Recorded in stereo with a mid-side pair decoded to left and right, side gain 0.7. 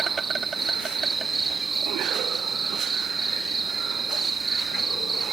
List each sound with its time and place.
0.0 s an insect: 20° right